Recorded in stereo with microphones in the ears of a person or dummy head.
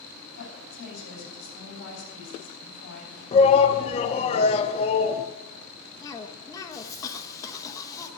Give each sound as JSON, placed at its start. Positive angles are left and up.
{"t": 0.3, "sound": "a woman speaking", "side_deg": 65, "distance_m": 7.0}
{"t": 3.3, "sound": "a shout", "side_deg": 35, "distance_m": 1.2}
{"t": 6.0, "sound": "a cough", "side_deg": 20, "distance_m": 1.0}